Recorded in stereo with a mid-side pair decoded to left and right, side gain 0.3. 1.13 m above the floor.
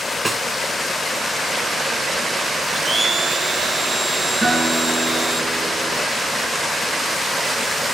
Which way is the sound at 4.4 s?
40° right.